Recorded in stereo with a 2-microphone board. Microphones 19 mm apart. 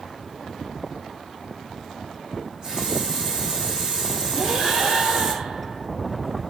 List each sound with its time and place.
2.4 s a running tap: 40° right (ahead or behind), 5 m
4.3 s breathing: 45° right (ahead or behind), 4 m